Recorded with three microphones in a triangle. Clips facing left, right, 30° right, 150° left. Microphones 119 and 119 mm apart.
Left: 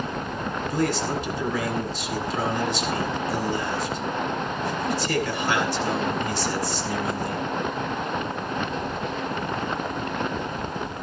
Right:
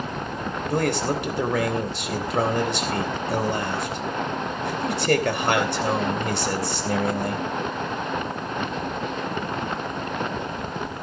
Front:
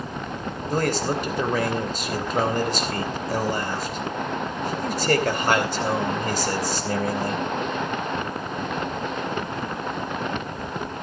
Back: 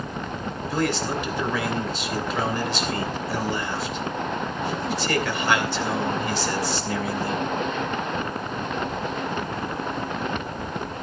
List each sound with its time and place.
0.7 s a man speaking: 70° right, 3 m